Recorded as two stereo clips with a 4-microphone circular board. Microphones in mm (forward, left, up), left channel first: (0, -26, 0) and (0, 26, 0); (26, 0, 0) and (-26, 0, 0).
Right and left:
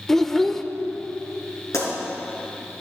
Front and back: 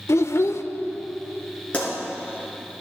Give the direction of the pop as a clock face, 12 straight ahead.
2 o'clock.